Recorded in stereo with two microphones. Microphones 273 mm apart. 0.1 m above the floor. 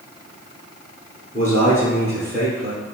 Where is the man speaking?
25° left (ahead or behind), 1.8 m.